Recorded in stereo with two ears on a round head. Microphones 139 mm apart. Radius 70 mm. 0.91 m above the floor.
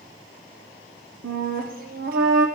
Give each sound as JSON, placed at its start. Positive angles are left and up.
{"t": 1.2, "sound": "a flute", "side_deg": -60, "distance_m": 1.0}